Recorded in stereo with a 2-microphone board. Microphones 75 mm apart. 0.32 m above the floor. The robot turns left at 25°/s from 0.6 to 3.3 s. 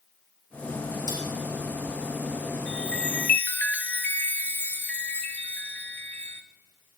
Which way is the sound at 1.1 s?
70° left (ahead or behind).